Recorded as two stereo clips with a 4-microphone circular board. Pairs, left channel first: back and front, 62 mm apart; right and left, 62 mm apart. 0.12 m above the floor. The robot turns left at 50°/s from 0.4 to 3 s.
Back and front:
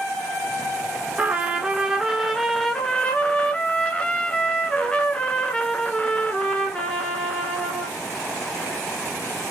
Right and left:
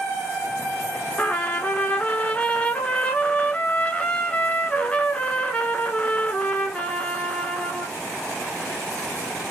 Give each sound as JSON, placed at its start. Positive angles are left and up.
{"t": 1.2, "sound": "a trumpet", "azimuth_deg": -40, "distance_m": 0.6}